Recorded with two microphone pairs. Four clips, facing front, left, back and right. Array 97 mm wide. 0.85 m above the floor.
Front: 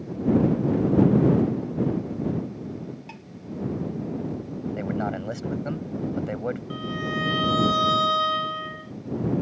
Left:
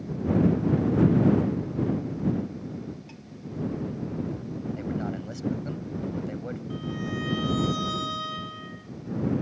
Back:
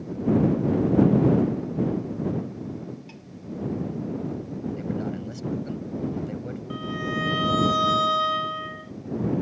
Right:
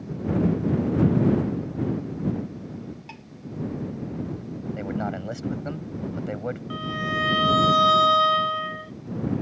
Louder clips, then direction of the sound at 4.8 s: Right 4 dB, front 5 dB; 30° right.